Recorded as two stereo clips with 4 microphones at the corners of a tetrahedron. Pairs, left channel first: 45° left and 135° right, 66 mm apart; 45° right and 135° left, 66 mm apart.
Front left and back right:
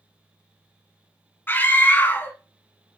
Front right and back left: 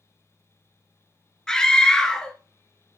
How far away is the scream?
About 1.2 m.